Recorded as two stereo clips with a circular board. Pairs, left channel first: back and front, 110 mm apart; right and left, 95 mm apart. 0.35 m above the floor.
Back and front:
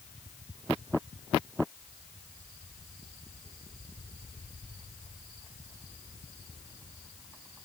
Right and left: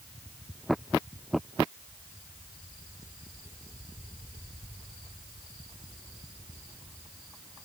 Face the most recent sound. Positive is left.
No sound to turn to.